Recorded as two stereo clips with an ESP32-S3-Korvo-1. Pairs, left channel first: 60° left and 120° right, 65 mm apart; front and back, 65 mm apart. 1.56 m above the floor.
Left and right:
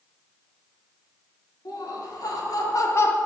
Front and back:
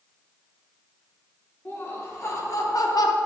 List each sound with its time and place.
1.6 s laughter: 50° left, 3 m; by 3.2 s straight ahead, 1.0 m